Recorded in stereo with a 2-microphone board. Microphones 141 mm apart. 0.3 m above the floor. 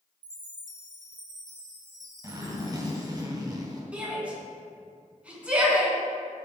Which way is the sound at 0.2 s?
70° right (ahead or behind).